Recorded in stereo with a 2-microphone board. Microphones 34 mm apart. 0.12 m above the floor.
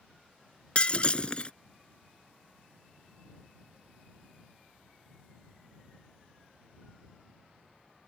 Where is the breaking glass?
35° left (ahead or behind).